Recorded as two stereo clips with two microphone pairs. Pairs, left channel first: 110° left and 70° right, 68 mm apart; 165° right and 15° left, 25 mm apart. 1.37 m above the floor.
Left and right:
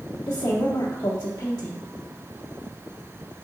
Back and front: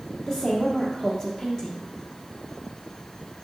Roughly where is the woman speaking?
Left.